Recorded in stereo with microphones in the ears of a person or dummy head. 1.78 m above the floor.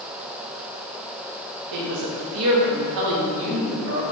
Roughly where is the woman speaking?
Right.